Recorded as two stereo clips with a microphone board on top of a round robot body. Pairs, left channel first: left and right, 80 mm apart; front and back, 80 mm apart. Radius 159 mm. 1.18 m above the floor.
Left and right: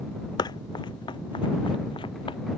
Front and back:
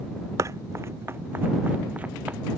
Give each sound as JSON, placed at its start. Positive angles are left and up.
{"t": 0.4, "sound": "running footsteps", "azimuth_deg": 125}